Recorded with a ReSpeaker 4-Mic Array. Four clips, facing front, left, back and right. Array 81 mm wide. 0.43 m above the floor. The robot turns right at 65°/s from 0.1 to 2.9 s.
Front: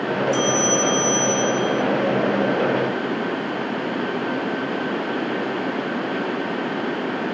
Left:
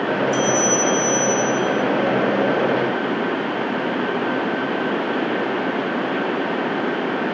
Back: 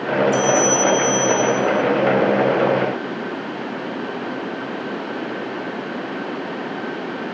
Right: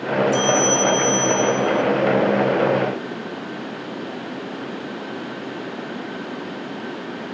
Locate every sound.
0.3 s a bell: 10° right, 1.2 m; by 1.8 s 90° left, 1.2 m